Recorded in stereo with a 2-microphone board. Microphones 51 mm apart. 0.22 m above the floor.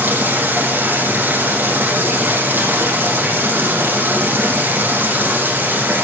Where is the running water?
40° right (ahead or behind), 8 m.